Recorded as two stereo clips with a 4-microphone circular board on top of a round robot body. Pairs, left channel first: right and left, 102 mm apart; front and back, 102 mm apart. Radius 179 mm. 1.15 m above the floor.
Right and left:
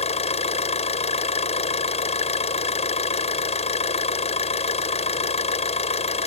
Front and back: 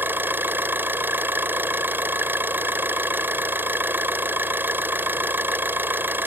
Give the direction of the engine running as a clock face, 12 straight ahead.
4 o'clock.